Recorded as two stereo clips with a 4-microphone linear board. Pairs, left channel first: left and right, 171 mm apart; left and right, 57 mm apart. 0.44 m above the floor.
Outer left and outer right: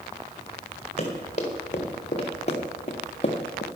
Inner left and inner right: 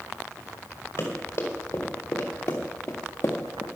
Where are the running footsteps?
40° left (ahead or behind), 3.5 m; by 3.6 s 35° left (ahead or behind), 1.9 m.